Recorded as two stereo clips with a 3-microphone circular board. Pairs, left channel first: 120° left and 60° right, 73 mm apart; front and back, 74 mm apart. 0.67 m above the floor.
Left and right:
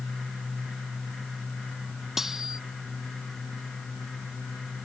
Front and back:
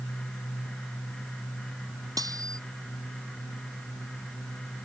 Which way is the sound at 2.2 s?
145° right.